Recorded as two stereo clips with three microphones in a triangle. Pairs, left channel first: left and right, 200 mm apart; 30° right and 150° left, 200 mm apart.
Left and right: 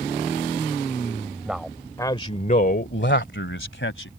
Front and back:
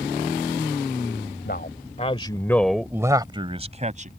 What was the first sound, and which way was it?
A man speaking, 5° right.